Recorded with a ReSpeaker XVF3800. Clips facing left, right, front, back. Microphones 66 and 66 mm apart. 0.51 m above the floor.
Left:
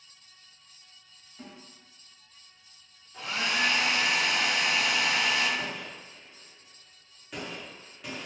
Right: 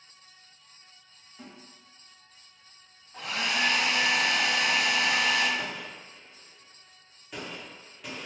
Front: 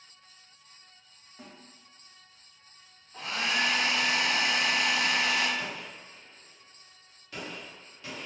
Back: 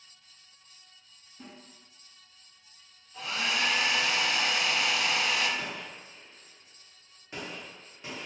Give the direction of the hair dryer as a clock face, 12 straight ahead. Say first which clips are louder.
Even, front 1 dB; 2 o'clock.